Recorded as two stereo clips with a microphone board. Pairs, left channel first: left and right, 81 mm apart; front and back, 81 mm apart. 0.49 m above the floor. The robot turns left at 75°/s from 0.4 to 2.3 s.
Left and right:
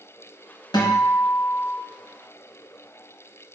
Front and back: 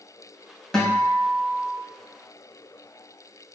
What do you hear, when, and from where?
0.7 s a guitar: 85° left, 2.5 m; by 1.8 s 10° left, 2.5 m